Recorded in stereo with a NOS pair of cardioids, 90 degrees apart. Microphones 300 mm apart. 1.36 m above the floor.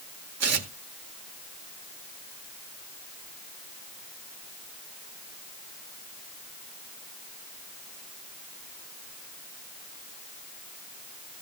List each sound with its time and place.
0.4 s tearing paper: 55° right, 2 m